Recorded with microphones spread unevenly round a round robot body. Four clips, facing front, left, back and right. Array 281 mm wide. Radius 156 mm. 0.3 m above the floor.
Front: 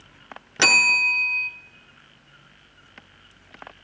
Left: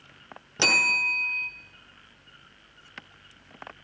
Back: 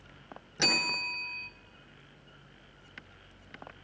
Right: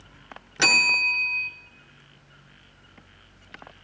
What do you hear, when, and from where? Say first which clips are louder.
0.6 s a bell: right 2 dB, front 10 dB; 10° right, 0.8 m